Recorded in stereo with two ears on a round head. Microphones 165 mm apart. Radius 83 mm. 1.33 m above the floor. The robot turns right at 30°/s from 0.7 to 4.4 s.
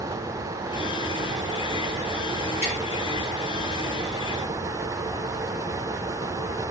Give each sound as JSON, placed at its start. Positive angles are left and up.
{"t": 2.6, "sound": "tapping", "side_deg": 35, "distance_m": 3.5}